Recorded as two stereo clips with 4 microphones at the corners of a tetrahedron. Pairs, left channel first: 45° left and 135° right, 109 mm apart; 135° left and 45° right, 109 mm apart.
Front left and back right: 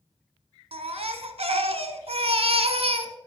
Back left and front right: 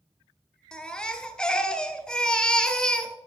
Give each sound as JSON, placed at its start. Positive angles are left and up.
{"t": 0.7, "sound": "a baby crying", "azimuth_deg": -145, "distance_m": 0.8}